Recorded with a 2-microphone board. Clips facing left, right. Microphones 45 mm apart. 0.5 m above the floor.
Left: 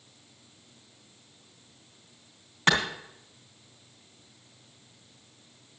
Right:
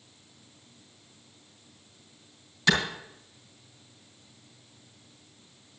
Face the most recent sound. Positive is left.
turn(degrees=40)  # may be behind; listen again after turning